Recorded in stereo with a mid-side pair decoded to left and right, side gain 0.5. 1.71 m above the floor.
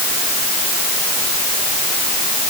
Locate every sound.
Only background noise.